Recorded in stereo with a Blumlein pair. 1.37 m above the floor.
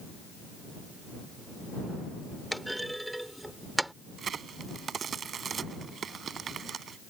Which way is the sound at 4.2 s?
20° right.